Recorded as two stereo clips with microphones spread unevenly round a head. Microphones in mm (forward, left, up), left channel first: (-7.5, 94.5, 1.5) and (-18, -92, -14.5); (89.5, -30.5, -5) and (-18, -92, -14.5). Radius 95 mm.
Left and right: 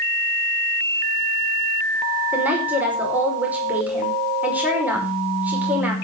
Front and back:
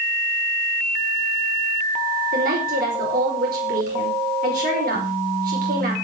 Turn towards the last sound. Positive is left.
turn(degrees=-175)